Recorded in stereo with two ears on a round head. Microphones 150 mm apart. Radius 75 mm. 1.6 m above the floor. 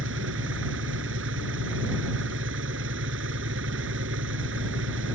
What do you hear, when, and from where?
0.0 s an engine running: 80° right